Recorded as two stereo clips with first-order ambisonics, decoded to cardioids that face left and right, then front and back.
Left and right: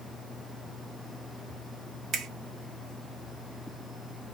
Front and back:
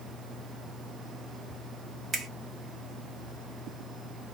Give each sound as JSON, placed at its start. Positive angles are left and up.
{"t": 2.1, "sound": "a finger snap", "azimuth_deg": -125, "distance_m": 0.6}